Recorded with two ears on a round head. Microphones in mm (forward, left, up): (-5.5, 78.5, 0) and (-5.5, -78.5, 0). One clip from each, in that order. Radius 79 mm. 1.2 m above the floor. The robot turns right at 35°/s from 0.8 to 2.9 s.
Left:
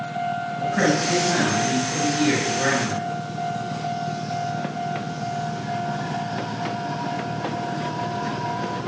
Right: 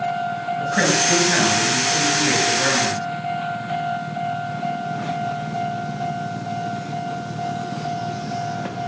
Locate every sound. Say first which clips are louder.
0.6 s a man speaking: right 3 dB; 70° right, 6.5 m; by 3.0 s 5° left, 6.5 m